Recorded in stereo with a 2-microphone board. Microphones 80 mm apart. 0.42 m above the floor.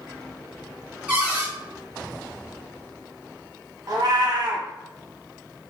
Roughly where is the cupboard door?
Centre.